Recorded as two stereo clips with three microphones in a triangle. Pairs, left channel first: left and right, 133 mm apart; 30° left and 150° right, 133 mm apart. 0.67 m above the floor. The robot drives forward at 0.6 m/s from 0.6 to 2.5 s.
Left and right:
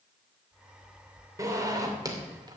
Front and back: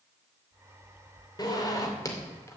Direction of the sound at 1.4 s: 25° right.